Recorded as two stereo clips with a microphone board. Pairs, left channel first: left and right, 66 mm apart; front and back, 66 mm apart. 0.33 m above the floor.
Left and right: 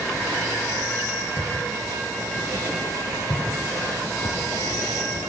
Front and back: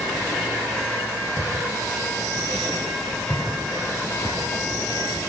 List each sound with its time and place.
1.4 s footsteps: 70° left, 8 m; by 5.2 s 80° left, 4.5 m